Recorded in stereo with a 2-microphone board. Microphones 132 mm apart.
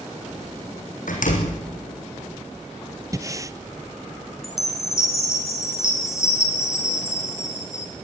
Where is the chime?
20° left (ahead or behind), 2.5 m.